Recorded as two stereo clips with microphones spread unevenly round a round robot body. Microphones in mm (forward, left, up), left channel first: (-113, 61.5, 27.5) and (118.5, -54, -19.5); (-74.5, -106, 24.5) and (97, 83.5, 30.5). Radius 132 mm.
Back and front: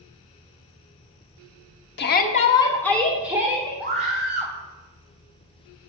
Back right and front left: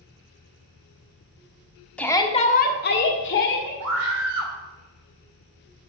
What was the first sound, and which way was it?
A shout, 150° left.